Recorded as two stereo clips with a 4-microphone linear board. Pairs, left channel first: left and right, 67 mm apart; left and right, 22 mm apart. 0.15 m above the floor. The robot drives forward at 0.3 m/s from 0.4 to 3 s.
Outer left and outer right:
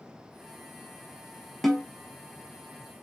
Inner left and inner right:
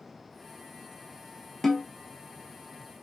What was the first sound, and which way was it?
A snare drum, 5° left (ahead or behind).